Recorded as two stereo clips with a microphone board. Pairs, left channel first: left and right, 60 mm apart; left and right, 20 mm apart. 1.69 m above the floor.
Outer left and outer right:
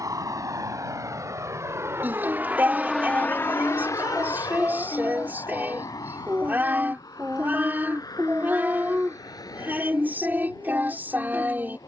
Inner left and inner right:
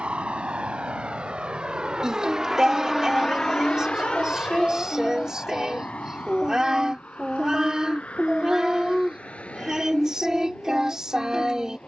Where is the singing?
30° right (ahead or behind).